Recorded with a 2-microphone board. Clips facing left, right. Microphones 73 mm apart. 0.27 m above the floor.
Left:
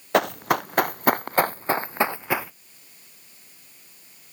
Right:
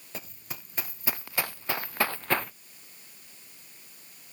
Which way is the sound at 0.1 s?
75° left (ahead or behind).